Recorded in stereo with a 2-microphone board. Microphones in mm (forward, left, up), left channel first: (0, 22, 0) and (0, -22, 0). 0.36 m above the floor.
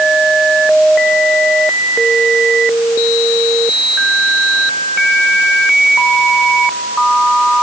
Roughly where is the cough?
I don't hear a cough.